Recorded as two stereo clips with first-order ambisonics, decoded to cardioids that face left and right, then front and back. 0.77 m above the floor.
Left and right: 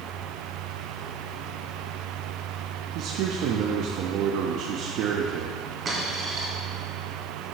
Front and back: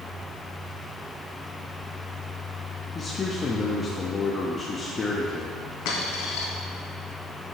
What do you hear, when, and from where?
3.0 s a man speaking: 70° right, 0.7 m
5.8 s a dropped coin: 20° right, 2 m